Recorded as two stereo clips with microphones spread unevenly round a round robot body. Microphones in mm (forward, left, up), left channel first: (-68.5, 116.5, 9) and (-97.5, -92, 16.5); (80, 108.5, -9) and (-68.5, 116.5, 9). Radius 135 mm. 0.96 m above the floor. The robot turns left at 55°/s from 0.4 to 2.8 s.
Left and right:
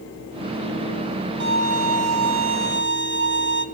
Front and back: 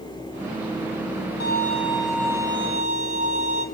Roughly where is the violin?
Ahead right.